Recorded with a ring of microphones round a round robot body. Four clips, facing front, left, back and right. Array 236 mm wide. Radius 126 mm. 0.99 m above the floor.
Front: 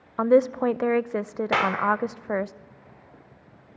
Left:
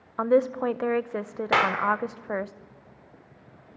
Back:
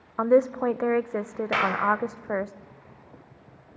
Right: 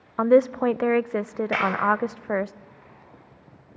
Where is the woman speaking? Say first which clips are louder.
Right 4 dB, front 1 dB; 65° right, 0.5 m.